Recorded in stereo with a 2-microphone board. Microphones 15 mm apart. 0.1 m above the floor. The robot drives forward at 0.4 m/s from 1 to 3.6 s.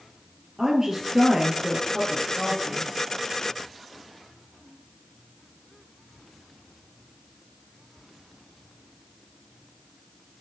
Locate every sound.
0.6 s a woman speaking: 45° right (ahead or behind), 2.5 m